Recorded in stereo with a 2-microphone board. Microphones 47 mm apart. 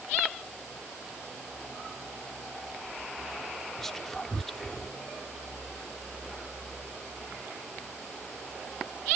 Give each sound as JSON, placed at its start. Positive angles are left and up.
{"t": 3.8, "sound": "whispering", "side_deg": 5}